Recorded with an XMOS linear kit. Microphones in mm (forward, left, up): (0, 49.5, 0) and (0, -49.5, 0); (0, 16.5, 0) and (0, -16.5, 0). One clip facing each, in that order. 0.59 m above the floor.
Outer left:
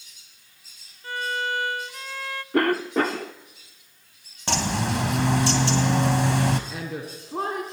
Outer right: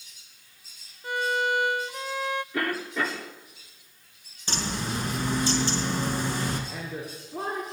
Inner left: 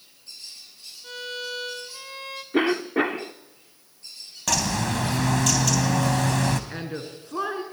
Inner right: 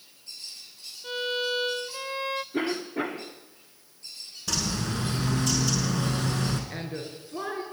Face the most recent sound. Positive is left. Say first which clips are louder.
# outer left 3 dB, inner left 2 dB
turn(degrees=85)